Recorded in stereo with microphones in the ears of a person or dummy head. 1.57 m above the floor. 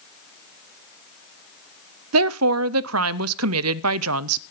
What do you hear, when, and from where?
2.1 s a woman speaking: 85° right, 0.6 m